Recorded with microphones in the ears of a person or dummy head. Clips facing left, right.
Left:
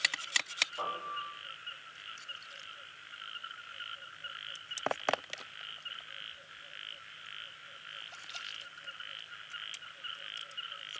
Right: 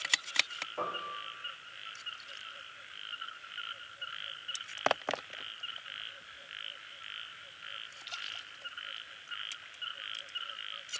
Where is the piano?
75° right (ahead or behind), 4 m.